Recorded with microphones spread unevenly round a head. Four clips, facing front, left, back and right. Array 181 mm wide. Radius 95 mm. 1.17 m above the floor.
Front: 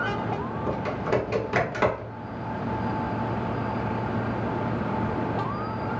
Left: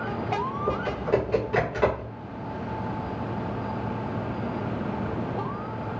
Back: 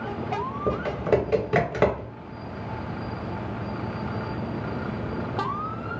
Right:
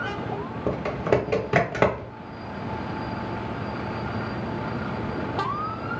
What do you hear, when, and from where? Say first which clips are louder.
0.7 s typing on a keyboard: right 4 dB, back 4 dB; 100° right, 0.8 m